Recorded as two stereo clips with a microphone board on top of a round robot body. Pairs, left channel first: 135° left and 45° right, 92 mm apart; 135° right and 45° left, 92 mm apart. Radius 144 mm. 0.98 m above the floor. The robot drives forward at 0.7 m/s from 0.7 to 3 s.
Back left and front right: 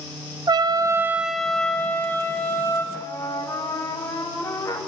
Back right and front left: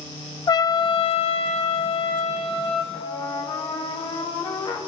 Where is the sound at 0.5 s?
90° right, 0.5 m; by 2.8 s 160° right, 1.6 m.